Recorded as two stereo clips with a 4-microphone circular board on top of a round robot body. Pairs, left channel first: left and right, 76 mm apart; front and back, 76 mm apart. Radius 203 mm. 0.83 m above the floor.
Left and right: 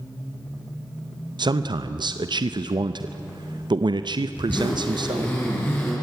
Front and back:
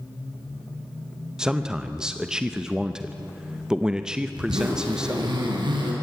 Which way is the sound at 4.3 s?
155° left.